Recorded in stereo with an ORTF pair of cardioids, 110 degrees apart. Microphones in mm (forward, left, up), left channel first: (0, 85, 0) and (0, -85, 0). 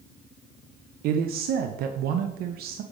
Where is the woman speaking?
65° right, 0.6 m.